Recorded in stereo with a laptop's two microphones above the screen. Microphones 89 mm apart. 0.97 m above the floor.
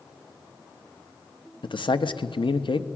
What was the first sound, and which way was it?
A man speaking, 65° left (ahead or behind).